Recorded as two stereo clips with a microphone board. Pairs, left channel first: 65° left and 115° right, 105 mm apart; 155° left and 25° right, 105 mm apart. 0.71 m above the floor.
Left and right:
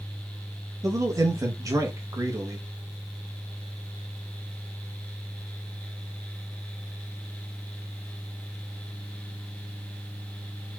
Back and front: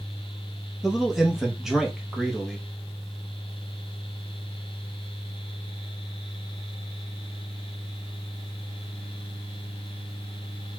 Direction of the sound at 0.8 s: 105° right.